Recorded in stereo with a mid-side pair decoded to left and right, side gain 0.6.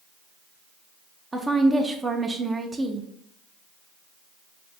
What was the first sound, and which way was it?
A woman speaking, 15° right.